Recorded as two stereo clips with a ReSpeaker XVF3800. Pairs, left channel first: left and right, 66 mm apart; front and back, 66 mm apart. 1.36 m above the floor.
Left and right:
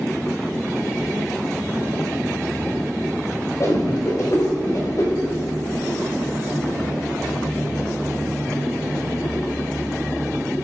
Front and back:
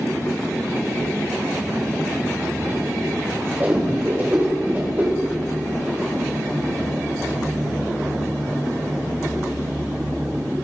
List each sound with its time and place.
3.6 s a whoosh: 120° left, 4 m